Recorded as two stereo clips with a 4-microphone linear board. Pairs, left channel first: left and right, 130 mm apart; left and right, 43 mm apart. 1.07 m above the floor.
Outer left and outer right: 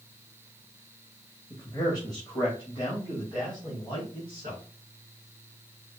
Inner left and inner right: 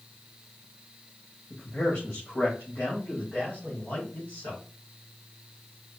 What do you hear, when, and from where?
1.5 s a man speaking: 30° left (ahead or behind), 1.6 m; by 4.6 s 40° left (ahead or behind), 3.5 m